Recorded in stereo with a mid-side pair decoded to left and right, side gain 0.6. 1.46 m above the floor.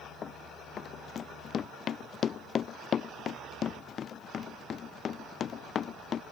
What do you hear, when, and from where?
0.2 s running footsteps: 40° left